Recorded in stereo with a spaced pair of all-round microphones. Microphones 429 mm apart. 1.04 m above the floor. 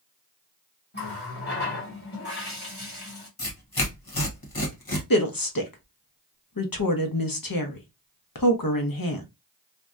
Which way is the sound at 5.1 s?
50° left (ahead or behind).